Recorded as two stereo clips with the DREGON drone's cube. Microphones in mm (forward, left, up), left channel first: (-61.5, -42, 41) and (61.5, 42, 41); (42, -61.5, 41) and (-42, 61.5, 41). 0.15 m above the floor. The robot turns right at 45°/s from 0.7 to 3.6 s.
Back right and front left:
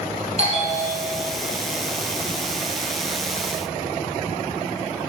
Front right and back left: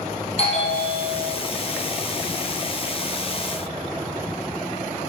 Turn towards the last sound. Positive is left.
turn(degrees=120)